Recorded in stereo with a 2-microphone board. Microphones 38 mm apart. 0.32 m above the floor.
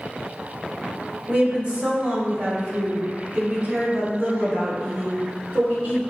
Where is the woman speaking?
20° right (ahead or behind), 0.9 m; by 6.0 s 75° right (ahead or behind), 3.5 m.